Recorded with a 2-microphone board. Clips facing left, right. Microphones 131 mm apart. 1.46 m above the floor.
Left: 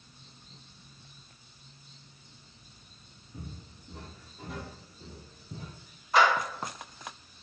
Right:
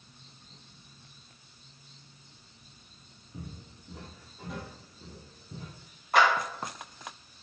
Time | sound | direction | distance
3.3 | footsteps | 20° right (ahead or behind) | 1.5 m
6.1 | a clap | 55° right (ahead or behind) | 1.6 m